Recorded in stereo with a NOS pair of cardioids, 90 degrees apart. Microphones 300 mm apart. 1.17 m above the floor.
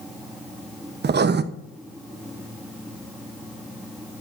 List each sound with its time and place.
0.0 s a fan: straight ahead, 2 m
1.0 s writing: 35° right, 0.9 m